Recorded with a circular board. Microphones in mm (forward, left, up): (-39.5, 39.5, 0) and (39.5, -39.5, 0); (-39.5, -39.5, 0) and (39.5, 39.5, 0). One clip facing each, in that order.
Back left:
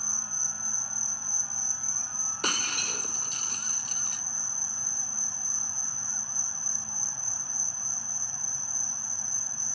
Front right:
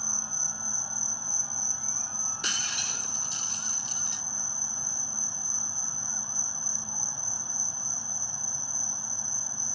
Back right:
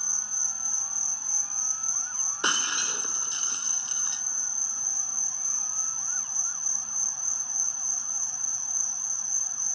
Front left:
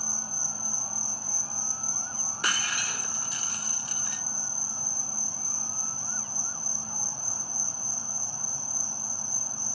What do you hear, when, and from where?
0.0 s an insect: 20° left
2.4 s breaking glass: 160° left